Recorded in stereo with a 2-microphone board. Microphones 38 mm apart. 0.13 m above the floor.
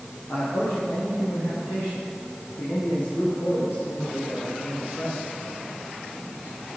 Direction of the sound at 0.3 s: 65° left (ahead or behind).